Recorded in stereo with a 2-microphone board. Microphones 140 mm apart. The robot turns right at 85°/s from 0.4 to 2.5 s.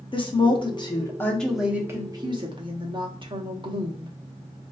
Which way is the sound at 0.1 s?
85° left.